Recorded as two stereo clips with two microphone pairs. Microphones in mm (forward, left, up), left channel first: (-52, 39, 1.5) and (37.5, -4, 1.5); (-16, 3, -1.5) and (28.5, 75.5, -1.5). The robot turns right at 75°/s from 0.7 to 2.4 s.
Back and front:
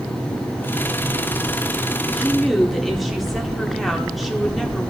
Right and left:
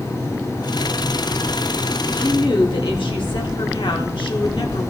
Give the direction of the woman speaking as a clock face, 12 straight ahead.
5 o'clock.